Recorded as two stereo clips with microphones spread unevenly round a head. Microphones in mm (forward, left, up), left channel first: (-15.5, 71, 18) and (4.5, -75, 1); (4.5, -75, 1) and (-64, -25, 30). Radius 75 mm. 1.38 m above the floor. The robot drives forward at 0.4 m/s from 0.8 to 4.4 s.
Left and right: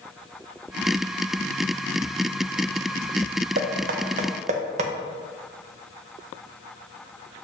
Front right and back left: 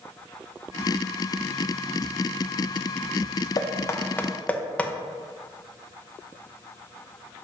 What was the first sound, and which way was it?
Knocking, 85° right.